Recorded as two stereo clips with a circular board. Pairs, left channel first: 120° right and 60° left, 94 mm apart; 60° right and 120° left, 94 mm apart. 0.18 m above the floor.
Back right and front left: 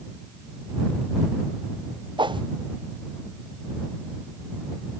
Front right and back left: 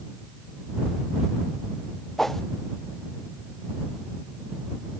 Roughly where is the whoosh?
Ahead left.